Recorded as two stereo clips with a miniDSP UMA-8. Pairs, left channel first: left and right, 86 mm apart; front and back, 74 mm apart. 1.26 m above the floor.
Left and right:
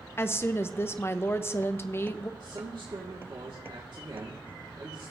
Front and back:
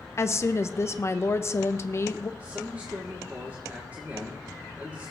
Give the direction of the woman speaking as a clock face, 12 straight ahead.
11 o'clock.